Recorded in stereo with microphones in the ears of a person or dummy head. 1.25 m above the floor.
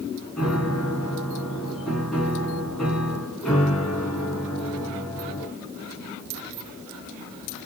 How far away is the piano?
About 1.9 m.